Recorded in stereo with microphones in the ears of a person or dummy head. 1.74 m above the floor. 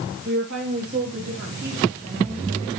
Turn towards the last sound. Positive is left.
turn(degrees=-40)  # may be behind; listen again after turning